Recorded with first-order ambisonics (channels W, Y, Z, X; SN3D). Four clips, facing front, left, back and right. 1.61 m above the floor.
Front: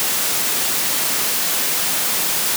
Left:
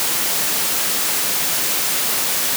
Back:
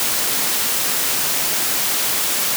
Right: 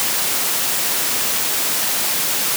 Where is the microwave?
I don't hear a microwave.